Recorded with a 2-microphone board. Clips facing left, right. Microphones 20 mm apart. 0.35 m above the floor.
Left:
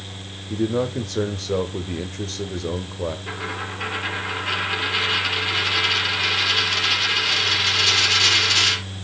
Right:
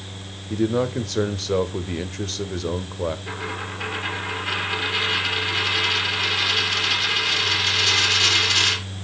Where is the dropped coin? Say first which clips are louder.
Left 1 dB; 5° left (ahead or behind), 3 m.